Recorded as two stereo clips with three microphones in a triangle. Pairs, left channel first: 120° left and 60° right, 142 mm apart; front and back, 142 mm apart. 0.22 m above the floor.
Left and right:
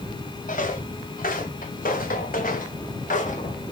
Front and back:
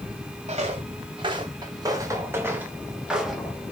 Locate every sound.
0.5 s footsteps: 140° left, 1.8 m; by 3.6 s 90° left, 2.0 m